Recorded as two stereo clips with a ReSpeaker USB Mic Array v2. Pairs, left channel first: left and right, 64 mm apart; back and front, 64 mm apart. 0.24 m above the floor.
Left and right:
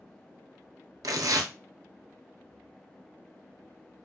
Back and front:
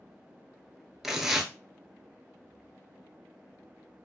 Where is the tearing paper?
85° right, 0.5 m.